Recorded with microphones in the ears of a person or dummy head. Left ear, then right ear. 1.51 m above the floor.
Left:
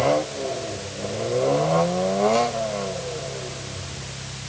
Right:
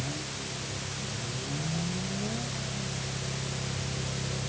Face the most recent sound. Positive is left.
No sound to turn to.